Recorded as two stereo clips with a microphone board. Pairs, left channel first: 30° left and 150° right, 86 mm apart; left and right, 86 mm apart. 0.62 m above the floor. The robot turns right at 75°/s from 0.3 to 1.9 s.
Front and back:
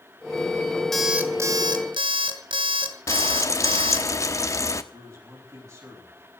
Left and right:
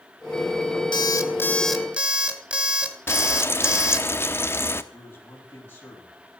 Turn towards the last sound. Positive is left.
turn(degrees=155)